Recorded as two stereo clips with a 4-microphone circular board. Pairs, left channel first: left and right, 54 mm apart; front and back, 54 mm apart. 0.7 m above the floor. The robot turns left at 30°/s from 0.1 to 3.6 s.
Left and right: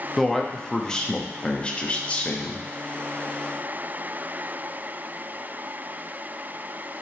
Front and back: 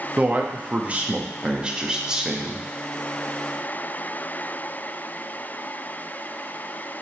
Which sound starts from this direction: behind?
A man speaking, at 0.2 s.